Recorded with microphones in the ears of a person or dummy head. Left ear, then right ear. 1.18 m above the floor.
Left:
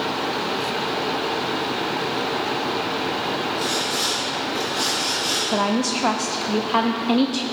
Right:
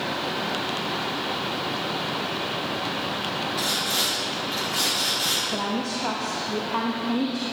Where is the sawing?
50° right (ahead or behind), 4 m.